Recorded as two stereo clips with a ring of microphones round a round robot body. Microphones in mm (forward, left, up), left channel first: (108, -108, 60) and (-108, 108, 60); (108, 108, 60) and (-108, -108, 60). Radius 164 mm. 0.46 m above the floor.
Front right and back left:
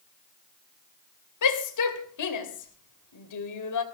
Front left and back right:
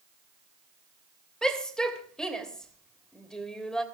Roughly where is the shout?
Ahead right.